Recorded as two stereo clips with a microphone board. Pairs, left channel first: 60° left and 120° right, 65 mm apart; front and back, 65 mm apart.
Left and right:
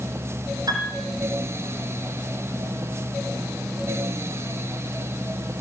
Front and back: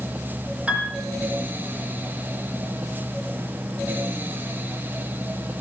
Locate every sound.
0.7 s a piano: 110° right, 8.5 m